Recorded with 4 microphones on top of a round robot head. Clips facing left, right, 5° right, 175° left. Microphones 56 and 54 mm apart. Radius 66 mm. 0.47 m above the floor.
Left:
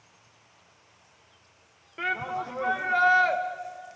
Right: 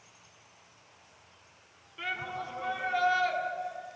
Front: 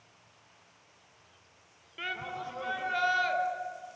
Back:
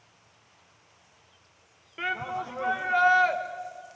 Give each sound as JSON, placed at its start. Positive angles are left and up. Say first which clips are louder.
{"t": 2.0, "sound": "a shout", "louder": "left 6 dB, back 6 dB", "azimuth_deg": 115, "distance_m": 1.9}